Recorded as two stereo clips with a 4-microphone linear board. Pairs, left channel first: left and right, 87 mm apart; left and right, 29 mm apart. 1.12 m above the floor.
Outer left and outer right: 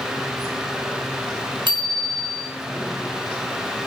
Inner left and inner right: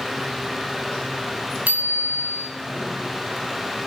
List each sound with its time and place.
1.7 s a bicycle bell: 75° right (ahead or behind), 6.5 m